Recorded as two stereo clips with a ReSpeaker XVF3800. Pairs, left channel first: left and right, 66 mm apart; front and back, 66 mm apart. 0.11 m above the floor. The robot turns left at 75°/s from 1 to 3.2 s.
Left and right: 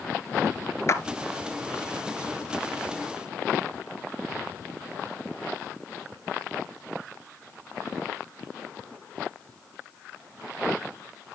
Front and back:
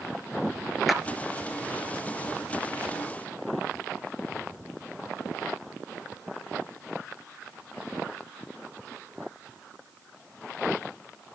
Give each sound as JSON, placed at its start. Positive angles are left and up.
{"t": 0.9, "sound": "a clap", "azimuth_deg": 90, "distance_m": 1.4}